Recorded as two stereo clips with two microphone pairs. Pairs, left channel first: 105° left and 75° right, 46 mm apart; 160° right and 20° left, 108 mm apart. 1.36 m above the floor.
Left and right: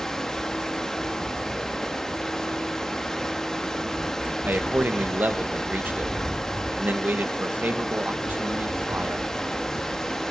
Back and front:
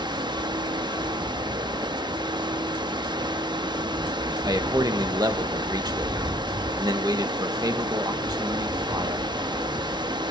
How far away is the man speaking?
About 1.9 m.